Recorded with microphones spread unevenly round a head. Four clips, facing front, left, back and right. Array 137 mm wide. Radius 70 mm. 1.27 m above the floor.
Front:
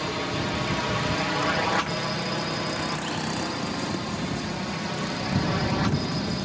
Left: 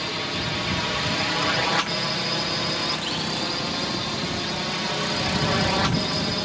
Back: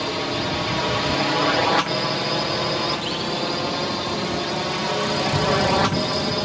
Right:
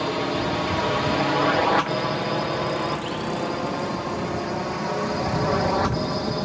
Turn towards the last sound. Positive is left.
turn(degrees=-160)